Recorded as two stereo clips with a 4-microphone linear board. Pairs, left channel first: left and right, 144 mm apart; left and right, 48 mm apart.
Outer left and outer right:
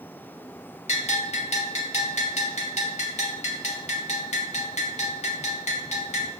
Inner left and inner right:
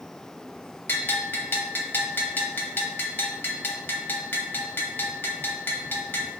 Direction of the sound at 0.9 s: 50° left (ahead or behind).